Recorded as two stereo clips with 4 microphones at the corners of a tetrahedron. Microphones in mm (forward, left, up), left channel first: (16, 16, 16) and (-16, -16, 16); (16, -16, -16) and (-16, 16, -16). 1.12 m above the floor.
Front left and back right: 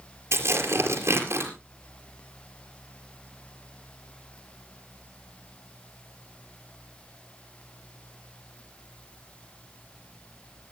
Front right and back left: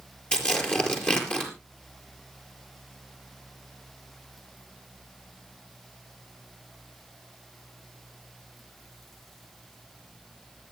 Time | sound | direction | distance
0.3 | tearing paper | 115° right | 4 m